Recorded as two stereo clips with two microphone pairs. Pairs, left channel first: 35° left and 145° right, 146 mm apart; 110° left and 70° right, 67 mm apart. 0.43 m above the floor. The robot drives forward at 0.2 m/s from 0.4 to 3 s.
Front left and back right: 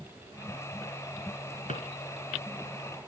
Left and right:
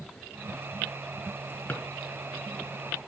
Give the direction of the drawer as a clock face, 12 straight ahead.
10 o'clock.